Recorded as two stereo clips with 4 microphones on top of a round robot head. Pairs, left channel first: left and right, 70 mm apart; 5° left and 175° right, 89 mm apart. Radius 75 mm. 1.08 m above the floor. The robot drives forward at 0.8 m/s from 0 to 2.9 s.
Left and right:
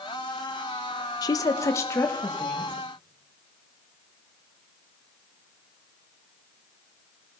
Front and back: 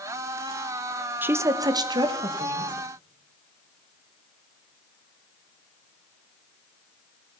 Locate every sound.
1.2 s a woman speaking: 115° left, 0.7 m; by 2.7 s 160° left, 1.6 m